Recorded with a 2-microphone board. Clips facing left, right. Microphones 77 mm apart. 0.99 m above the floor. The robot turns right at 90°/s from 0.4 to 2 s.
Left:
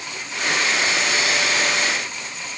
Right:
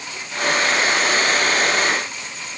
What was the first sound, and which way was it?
Only background noise.